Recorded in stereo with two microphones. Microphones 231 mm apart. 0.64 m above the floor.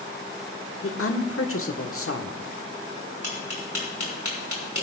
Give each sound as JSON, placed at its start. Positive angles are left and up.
{"t": 0.8, "sound": "a woman speaking", "side_deg": 65, "distance_m": 1.3}
{"t": 3.2, "sound": "tapping", "side_deg": 75, "distance_m": 4.0}